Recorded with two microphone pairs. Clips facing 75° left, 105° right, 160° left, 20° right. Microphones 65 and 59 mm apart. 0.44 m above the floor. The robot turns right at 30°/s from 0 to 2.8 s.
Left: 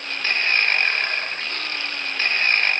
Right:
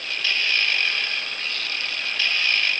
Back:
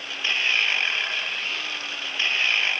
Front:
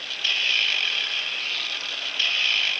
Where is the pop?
I don't hear a pop.